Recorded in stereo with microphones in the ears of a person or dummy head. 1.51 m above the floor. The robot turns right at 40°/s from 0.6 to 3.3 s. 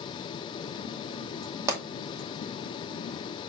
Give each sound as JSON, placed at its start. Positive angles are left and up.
{"t": 1.7, "sound": "a pop", "side_deg": -15, "distance_m": 2.0}